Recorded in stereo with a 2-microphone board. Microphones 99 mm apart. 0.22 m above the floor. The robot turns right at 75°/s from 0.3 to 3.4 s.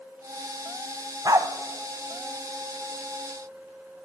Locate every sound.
1.2 s a dog barking: 35° right (ahead or behind), 0.6 m; by 1.5 s 40° right (ahead or behind), 0.6 m